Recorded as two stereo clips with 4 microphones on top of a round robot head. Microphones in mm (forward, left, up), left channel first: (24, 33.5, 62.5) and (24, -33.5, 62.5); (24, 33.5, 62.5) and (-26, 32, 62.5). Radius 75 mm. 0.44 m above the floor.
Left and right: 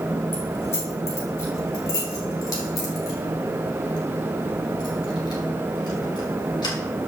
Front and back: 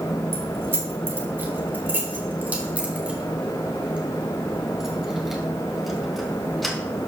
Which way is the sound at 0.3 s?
145° left.